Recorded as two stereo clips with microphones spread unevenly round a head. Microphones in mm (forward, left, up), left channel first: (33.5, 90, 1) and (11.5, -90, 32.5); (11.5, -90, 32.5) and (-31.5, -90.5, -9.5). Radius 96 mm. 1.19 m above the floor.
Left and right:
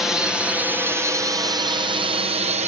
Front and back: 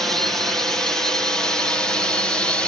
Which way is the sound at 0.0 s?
165° left.